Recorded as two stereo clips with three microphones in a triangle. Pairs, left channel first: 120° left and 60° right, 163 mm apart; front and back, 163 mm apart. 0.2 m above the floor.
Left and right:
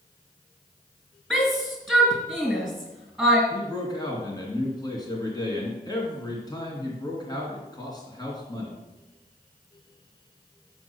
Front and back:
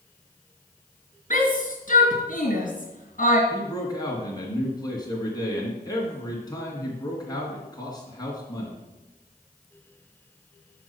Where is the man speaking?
60° left, 2.5 m.